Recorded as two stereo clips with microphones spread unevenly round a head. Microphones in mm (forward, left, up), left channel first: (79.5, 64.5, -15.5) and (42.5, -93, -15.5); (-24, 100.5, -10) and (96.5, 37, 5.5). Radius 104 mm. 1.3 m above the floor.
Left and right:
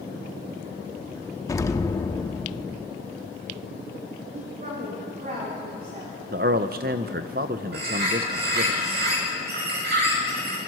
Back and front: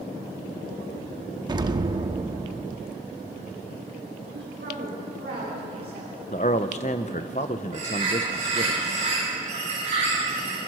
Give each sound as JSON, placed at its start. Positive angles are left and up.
{"t": 1.5, "sound": "an explosion", "azimuth_deg": 10, "distance_m": 1.0}
{"t": 4.3, "sound": "a woman speaking", "azimuth_deg": -70, "distance_m": 3.0}
{"t": 6.3, "sound": "a man speaking", "azimuth_deg": -155, "distance_m": 0.8}
{"t": 7.7, "sound": "a bird", "azimuth_deg": -90, "distance_m": 9.0}